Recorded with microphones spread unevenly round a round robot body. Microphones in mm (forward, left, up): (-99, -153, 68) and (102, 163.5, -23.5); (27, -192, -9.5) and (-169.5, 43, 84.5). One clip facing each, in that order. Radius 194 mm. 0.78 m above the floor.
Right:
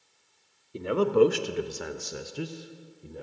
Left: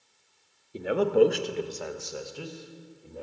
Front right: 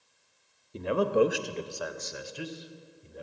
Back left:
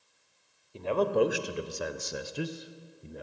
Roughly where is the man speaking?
Ahead.